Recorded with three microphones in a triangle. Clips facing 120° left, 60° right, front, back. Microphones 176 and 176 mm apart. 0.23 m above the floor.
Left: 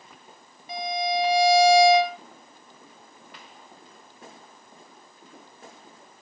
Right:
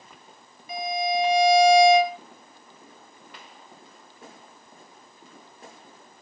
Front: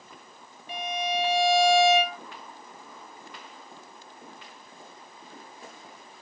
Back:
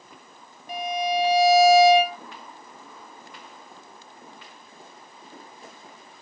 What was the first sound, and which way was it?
A violin, 165° left.